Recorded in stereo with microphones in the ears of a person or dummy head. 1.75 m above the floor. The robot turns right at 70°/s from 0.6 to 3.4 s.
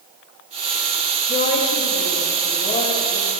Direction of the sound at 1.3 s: 40° left.